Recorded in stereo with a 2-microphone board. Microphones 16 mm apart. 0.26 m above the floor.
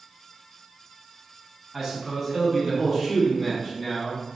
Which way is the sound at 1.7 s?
25° right (ahead or behind).